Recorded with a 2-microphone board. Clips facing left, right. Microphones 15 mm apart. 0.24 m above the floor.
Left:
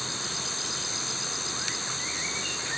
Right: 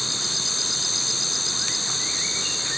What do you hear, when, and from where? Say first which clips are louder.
0.0 s an insect: right 7 dB; 30° right (ahead or behind)